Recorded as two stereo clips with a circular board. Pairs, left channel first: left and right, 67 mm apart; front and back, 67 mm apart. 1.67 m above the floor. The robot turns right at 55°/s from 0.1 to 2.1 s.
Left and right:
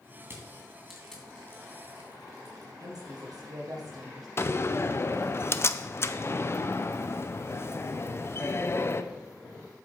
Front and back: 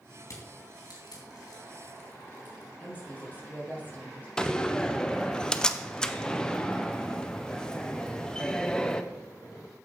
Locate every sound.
0.2 s crushing: 45° right, 2.5 m; by 2.7 s 60° left, 2.5 m
2.8 s a woman speaking: 65° right, 2.5 m
4.4 s a door slam: 70° left, 0.5 m